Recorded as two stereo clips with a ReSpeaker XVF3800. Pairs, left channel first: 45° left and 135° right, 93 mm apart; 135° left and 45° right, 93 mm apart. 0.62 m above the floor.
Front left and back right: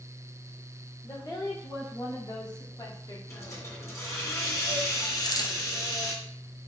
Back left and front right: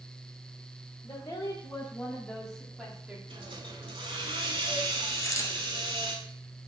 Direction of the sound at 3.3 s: 15° right.